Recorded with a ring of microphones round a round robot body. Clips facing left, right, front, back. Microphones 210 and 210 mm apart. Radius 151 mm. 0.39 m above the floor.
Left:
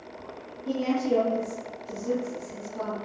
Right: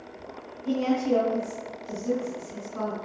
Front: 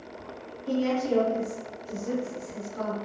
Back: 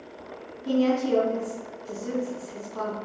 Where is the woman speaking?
140° right, 3 m.